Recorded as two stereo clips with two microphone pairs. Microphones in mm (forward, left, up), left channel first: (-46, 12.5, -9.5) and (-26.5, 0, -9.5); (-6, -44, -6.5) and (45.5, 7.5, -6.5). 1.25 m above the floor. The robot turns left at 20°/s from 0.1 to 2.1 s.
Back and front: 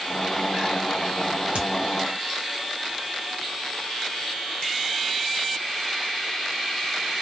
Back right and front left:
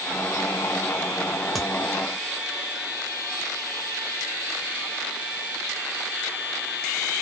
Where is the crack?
45° right, 1.1 m.